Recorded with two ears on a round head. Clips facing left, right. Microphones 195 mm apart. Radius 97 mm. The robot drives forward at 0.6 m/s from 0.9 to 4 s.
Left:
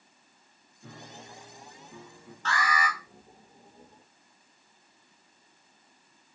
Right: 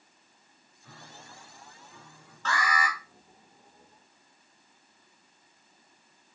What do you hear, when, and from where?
0.8 s a piano: 60° left (ahead or behind), 3 m; by 2.4 s 75° left (ahead or behind), 3 m
2.5 s an alarm: 70° right (ahead or behind), 3 m; by 3.0 s 80° right, 3 m